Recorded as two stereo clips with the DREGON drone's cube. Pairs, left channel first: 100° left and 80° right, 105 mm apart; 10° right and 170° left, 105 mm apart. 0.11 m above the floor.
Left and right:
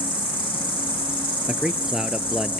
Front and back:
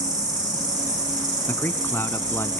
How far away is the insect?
About 3 m.